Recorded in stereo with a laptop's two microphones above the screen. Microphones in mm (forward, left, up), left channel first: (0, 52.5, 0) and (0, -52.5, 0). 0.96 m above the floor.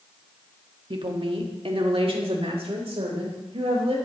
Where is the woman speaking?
55° right (ahead or behind), 1.7 m; by 4.0 s 70° right (ahead or behind), 4.5 m.